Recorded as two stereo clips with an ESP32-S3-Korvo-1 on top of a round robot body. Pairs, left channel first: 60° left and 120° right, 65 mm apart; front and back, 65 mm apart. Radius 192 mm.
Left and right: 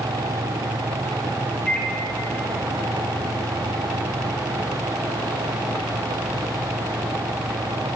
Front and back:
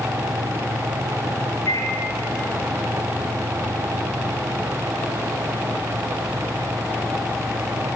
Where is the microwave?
20° right, 1.8 m.